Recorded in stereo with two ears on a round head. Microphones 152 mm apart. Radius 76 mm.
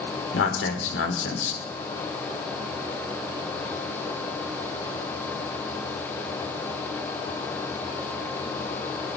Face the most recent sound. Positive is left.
turn(degrees=80)